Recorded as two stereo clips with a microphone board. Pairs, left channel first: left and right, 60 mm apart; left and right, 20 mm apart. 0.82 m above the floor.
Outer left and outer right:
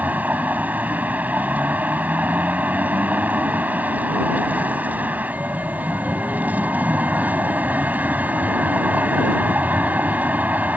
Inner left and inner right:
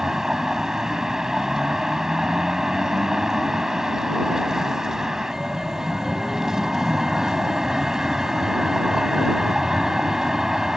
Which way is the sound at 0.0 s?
25° right (ahead or behind).